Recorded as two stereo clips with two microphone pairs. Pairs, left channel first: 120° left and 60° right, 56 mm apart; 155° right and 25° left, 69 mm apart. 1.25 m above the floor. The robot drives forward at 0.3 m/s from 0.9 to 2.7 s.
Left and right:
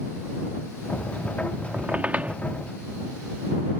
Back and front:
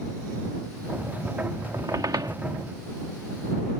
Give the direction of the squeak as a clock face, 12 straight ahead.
12 o'clock.